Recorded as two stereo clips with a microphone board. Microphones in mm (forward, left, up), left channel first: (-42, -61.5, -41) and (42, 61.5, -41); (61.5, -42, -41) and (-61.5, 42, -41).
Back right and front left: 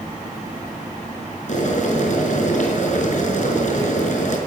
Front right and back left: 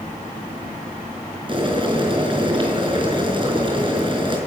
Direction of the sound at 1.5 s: 160° right.